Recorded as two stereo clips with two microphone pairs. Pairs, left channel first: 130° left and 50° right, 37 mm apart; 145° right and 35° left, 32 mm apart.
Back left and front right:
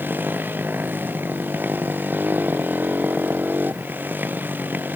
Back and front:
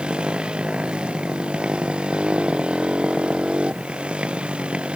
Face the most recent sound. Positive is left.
turn(degrees=-25)